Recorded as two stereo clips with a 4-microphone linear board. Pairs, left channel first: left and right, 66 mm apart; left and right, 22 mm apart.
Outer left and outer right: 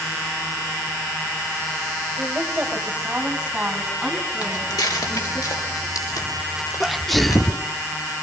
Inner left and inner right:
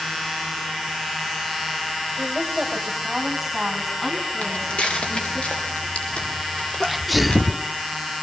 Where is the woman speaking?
30° right (ahead or behind), 3 m; by 5.4 s centre (ahead or behind), 7.5 m.